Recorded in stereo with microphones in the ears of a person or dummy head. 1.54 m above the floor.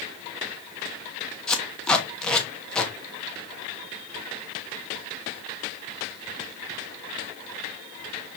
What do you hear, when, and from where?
1.5 s tape being pulled: 10° left (ahead or behind), 0.8 m